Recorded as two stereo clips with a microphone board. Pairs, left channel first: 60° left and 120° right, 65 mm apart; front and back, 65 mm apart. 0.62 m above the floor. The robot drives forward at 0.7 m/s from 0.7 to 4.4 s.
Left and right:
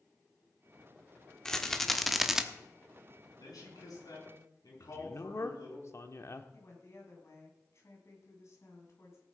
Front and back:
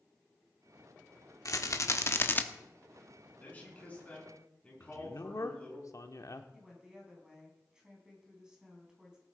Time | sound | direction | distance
1.4 | a rattle | 20° right | 1.3 m
3.4 | a man speaking | 65° left | 6 m
4.8 | a man speaking | 25° left | 1.1 m
6.5 | a woman speaking | 100° left | 4.5 m